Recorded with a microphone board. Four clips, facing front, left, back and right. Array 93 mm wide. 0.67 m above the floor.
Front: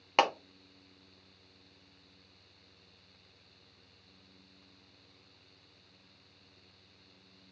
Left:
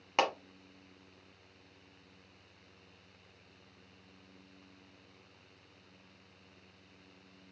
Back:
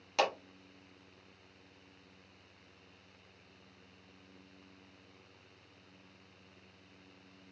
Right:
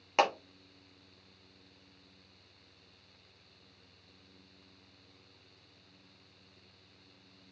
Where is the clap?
5° right, 1.2 m.